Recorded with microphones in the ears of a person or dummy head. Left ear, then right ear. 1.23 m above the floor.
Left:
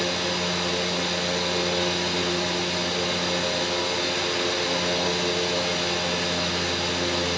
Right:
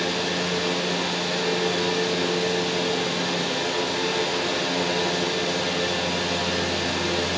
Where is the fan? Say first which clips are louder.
Even; 35° left (ahead or behind), 7 m.